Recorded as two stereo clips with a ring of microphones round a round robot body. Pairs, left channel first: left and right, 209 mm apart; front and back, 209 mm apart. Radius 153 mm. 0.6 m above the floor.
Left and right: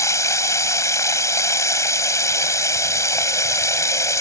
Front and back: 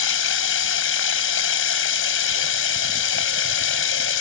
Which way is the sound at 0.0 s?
15° left.